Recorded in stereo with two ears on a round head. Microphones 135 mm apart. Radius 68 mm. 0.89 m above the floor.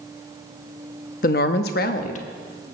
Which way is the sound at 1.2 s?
60° left (ahead or behind).